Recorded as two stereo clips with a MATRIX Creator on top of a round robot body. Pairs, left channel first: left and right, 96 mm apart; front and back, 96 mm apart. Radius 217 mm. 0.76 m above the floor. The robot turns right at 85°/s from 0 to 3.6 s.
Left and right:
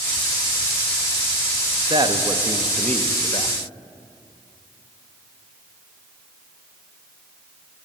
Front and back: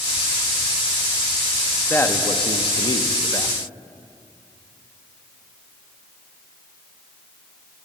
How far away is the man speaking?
About 1.3 m.